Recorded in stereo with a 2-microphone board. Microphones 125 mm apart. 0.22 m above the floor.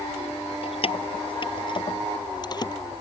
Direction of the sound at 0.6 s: 55° left (ahead or behind).